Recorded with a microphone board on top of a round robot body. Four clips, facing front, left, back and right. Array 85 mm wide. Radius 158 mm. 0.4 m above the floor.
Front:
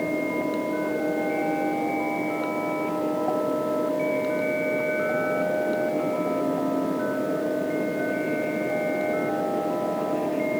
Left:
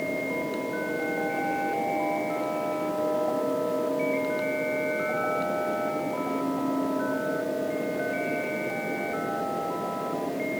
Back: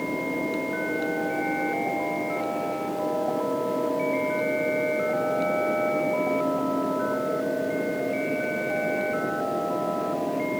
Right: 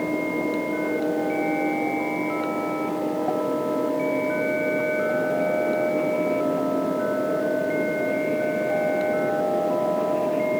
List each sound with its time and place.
Only background noise.